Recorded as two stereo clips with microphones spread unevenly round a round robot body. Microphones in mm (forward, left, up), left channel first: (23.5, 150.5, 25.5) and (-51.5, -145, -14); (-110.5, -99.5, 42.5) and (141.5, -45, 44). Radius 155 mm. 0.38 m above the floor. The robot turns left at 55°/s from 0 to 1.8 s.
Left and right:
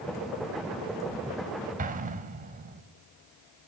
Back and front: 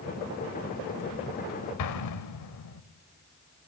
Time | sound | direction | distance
1.8 | an explosion | 165° right | 0.8 m